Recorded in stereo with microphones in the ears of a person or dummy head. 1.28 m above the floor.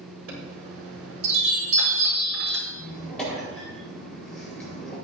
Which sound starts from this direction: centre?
A squeak, at 2.7 s.